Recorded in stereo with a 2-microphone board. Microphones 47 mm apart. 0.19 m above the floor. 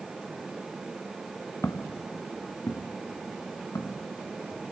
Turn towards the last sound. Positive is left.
turn(degrees=90)